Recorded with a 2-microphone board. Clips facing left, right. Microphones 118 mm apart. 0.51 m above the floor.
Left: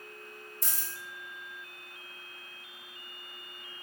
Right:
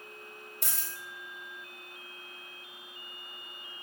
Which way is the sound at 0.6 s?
65° right (ahead or behind).